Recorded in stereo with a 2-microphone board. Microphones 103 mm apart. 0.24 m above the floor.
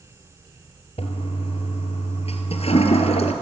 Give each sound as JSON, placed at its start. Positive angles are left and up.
{"t": 1.0, "sound": "a toilet flushing", "side_deg": 75, "distance_m": 2.0}